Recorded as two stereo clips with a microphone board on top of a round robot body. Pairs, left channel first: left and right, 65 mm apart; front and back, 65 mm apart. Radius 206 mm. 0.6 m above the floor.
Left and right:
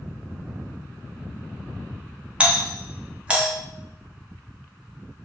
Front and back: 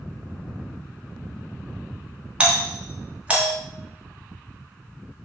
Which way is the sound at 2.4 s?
140° right.